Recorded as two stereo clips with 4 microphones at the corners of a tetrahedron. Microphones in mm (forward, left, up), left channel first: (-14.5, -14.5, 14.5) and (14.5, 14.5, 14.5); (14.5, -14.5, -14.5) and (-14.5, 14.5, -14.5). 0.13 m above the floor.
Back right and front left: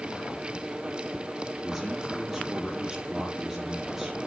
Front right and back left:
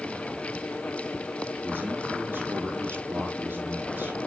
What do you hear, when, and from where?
1.6 s a man speaking: 130° left, 4 m